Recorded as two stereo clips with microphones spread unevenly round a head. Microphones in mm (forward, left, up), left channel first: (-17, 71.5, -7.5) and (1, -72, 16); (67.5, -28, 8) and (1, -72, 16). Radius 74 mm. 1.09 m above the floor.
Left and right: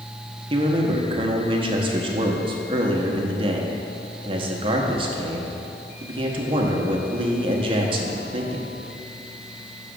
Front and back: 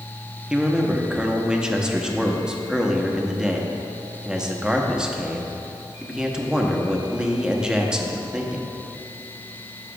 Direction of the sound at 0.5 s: 65° right.